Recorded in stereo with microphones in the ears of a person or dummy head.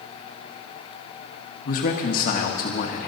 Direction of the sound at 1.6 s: 55° left (ahead or behind).